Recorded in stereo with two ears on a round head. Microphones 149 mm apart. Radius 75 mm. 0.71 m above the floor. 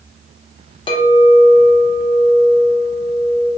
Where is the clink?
30° left (ahead or behind), 0.6 m.